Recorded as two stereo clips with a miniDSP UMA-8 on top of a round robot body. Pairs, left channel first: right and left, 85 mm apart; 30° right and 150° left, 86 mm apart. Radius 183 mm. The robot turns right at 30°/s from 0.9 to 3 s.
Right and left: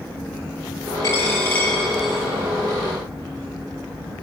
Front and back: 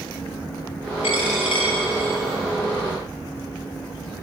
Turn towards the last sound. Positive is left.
turn(degrees=25)